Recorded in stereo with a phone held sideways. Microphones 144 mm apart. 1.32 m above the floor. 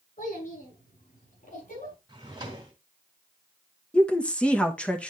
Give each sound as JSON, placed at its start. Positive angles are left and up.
{"t": 0.2, "sound": "a child speaking", "side_deg": 75, "distance_m": 7.5}
{"t": 2.1, "sound": "a drawer", "side_deg": -30, "distance_m": 2.0}
{"t": 3.9, "sound": "a woman speaking", "side_deg": 5, "distance_m": 1.1}